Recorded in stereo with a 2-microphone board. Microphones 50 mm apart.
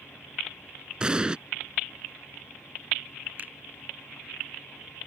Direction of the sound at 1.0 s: 20° right (ahead or behind).